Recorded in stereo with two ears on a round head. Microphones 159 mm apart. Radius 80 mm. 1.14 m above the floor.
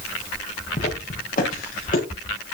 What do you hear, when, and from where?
0.8 s footsteps: 45° left (ahead or behind), 5.5 m; by 2.0 s 50° left (ahead or behind), 6.5 m